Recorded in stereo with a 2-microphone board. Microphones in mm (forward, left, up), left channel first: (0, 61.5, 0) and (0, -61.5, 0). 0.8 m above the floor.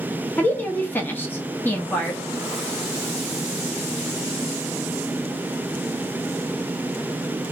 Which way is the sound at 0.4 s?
15° left (ahead or behind).